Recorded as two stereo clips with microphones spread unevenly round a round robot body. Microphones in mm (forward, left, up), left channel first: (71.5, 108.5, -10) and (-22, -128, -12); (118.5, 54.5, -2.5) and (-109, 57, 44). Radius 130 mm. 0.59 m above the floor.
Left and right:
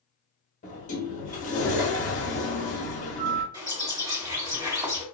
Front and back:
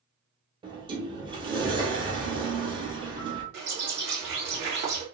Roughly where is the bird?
Behind.